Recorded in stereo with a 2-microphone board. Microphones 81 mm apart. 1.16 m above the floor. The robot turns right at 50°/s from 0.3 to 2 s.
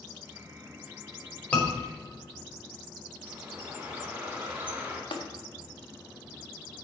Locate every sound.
1.5 s a scream: 15° left (ahead or behind), 4 m; by 1.7 s 20° left (ahead or behind), 4 m
3.2 s a bird: 20° right (ahead or behind), 2.5 m
5.1 s tapping: 75° left (ahead or behind), 1.5 m